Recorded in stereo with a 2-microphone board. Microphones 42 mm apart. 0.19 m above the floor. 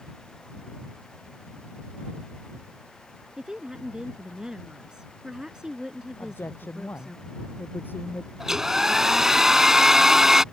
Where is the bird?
I don't hear a bird.